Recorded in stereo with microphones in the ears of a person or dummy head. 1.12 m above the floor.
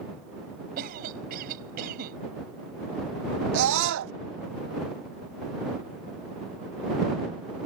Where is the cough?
50° right (ahead or behind).